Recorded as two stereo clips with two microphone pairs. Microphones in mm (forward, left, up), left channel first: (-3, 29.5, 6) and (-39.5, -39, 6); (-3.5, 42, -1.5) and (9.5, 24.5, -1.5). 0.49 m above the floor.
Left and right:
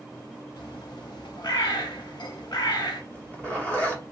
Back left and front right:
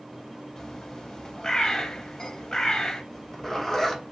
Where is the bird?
70° left, 0.5 m.